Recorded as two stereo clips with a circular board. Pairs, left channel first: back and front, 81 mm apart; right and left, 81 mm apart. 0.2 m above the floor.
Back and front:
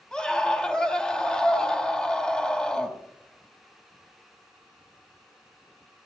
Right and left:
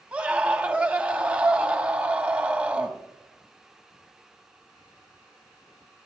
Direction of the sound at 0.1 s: 125° left.